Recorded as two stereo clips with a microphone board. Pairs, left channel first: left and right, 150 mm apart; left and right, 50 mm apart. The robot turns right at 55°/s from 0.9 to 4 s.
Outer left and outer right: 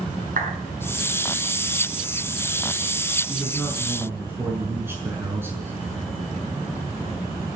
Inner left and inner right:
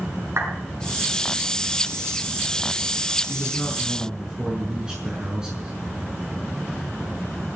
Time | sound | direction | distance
0.4 | a clap | 65° right (ahead or behind) | 6.5 m
3.3 | a man speaking | 155° left | 6 m